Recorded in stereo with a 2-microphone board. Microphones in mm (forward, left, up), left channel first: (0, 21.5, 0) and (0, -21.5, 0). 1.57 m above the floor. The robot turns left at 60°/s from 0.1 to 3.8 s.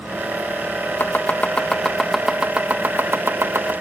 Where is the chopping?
65° left (ahead or behind); by 3.7 s 80° right.